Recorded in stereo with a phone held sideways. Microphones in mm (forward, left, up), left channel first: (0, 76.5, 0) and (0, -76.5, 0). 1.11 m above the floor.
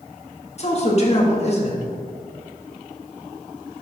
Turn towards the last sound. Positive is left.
turn(degrees=45)  # may be behind; listen again after turning